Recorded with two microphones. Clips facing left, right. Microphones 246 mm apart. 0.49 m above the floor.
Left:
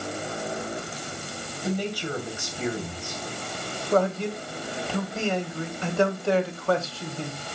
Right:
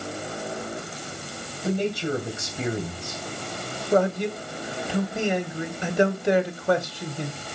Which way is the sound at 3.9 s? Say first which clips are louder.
Right 2 dB; 15° right (ahead or behind).